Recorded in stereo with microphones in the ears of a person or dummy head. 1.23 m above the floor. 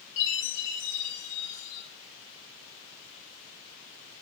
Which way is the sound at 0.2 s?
60° left (ahead or behind).